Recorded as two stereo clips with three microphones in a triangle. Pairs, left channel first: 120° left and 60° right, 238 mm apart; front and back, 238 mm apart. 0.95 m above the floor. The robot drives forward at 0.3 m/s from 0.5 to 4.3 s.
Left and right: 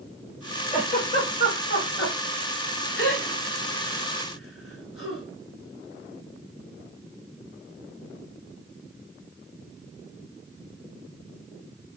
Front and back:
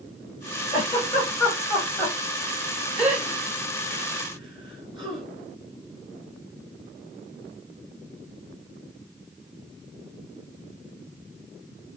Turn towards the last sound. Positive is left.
turn(degrees=115)